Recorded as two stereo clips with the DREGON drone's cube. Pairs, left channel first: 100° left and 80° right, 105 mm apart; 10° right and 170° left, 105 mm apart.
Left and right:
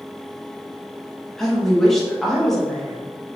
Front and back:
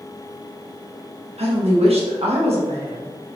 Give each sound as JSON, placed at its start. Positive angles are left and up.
{"t": 1.4, "sound": "a woman speaking", "azimuth_deg": -175, "distance_m": 1.0}